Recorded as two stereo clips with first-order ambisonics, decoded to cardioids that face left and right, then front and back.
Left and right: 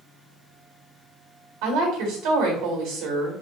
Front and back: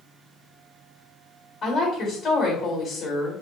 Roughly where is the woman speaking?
Right.